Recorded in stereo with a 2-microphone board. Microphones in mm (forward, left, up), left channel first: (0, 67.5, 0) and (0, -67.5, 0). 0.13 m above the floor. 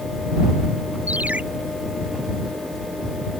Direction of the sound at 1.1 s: 10° right (ahead or behind).